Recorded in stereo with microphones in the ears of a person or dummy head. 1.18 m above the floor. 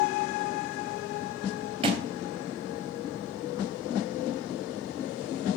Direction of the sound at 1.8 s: 30° right (ahead or behind).